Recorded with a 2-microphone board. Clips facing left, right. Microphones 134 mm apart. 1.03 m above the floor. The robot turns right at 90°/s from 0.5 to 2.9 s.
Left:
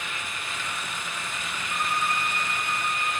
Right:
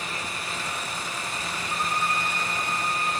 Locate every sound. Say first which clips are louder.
1.7 s a violin: even; 15° right, 6 m; by 3.2 s 90° left, 6 m